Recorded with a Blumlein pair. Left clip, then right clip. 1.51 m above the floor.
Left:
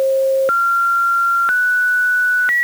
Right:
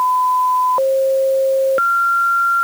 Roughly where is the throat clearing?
No throat clearing in this recording.